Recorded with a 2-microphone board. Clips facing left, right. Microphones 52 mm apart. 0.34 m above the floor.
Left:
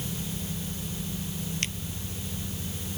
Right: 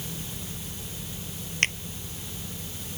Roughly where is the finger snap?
Right.